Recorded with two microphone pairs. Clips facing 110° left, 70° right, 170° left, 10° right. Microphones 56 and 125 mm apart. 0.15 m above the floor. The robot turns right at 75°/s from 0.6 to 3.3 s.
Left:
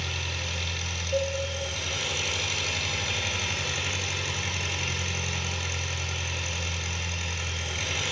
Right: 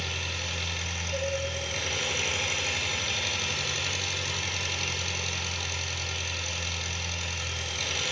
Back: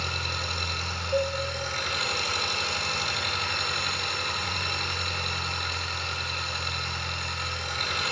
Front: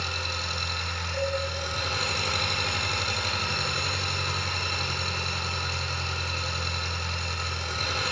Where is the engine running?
160° right, 1.2 m; by 8.1 s 40° left, 1.2 m.